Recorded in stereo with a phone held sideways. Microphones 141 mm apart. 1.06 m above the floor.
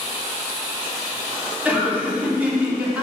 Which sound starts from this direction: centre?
Laughter, at 1.6 s.